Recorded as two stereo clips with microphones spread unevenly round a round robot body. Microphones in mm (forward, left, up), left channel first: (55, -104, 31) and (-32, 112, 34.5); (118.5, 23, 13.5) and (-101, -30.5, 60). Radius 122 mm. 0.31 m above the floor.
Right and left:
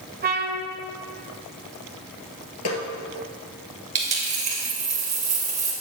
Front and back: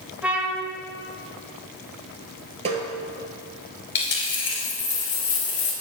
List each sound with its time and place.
0.2 s a trumpet: 95° left, 1.3 m
2.6 s a snare drum: 100° right, 2.5 m
4.0 s a dropped coin: 50° left, 2.5 m